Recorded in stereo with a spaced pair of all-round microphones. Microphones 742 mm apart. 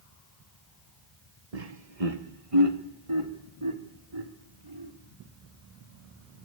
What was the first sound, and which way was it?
Laughter, 55° right (ahead or behind).